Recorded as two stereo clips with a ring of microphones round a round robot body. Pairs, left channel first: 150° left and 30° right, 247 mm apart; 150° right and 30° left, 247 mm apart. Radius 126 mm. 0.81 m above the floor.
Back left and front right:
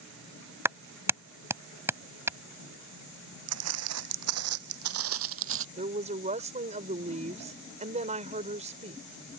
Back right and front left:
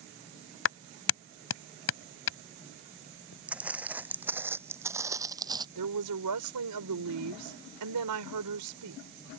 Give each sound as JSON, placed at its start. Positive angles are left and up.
{"t": 0.7, "sound": "a clap", "azimuth_deg": -110}
{"t": 3.5, "sound": "footsteps", "azimuth_deg": -55}
{"t": 5.8, "sound": "a woman speaking", "azimuth_deg": 35}